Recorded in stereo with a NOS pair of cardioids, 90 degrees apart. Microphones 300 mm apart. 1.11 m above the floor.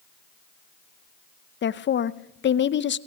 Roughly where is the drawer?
No drawer in this recording.